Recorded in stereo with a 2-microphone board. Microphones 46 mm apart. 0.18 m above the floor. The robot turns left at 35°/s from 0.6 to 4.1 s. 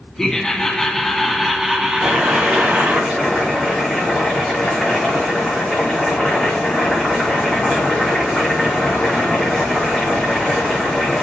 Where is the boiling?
120° right, 6 m; by 11.2 s 170° left, 6 m.